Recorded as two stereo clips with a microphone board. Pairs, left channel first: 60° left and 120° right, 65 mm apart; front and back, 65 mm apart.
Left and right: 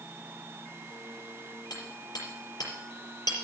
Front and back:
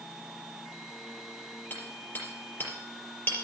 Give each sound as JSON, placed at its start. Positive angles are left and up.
{"t": 1.7, "sound": "hammering", "azimuth_deg": 60, "distance_m": 4.5}